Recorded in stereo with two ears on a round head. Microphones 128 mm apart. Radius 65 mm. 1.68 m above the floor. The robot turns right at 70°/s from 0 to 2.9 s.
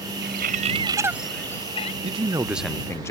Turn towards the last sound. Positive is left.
turn(degrees=20)